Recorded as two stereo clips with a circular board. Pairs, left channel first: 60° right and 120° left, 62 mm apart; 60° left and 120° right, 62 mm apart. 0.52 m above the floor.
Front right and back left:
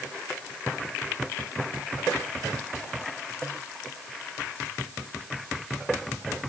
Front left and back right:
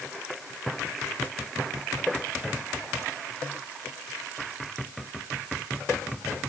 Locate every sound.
Only background noise.